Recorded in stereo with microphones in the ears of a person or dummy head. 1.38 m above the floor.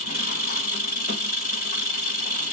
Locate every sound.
0.0 s an engine running: 45° left (ahead or behind), 0.9 m